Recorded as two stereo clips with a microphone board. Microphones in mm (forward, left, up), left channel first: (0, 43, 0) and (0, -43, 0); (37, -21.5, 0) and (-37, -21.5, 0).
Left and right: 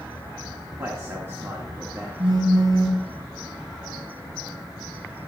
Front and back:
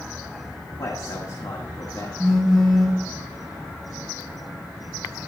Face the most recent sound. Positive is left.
turn(degrees=-85)